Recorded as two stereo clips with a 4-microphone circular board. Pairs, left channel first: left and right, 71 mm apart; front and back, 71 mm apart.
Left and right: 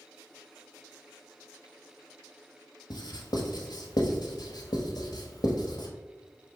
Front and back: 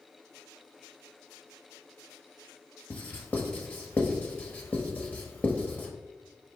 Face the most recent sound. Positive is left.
turn(degrees=65)